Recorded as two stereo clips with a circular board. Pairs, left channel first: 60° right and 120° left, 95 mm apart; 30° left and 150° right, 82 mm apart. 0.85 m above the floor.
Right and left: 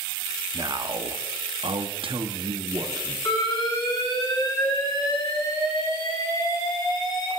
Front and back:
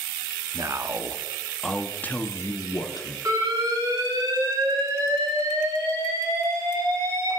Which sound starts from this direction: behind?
A man speaking, at 0.5 s.